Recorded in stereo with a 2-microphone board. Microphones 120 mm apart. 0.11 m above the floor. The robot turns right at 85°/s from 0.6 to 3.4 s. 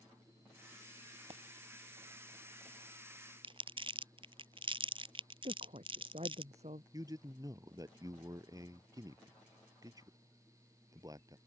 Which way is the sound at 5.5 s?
65° right (ahead or behind).